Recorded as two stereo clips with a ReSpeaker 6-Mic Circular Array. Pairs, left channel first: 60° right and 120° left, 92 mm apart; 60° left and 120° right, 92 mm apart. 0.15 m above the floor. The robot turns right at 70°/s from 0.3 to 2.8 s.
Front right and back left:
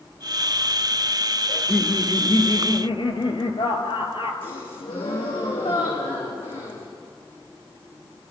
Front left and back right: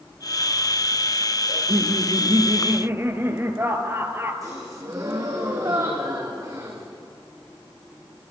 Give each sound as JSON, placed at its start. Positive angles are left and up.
{"t": 1.5, "sound": "laughter", "azimuth_deg": -150, "distance_m": 3.0}
{"t": 4.4, "sound": "a gasp", "azimuth_deg": -70, "distance_m": 4.5}